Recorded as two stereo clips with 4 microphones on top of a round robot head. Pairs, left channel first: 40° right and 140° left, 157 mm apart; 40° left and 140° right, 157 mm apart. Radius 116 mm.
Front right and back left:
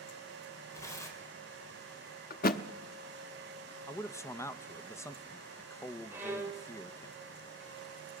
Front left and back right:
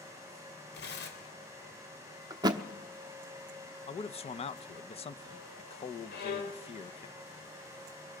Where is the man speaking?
25° left, 0.8 m.